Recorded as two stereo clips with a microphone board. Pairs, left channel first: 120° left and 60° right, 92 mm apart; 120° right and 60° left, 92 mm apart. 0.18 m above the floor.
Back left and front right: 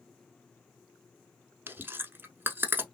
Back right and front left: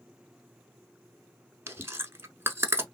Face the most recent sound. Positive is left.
turn(degrees=5)